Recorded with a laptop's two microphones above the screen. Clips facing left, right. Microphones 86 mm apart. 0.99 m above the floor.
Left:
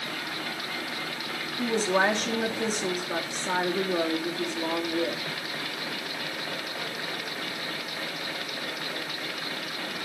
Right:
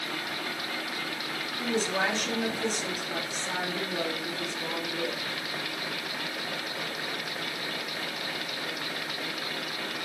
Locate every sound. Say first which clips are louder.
1.6 s a woman speaking: left 4 dB; 45° left (ahead or behind), 2 m